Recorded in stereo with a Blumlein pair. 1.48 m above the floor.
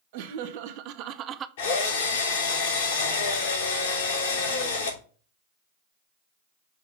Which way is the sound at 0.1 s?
50° right.